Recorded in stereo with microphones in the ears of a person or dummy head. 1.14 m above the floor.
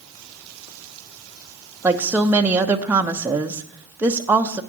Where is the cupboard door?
I don't hear a cupboard door.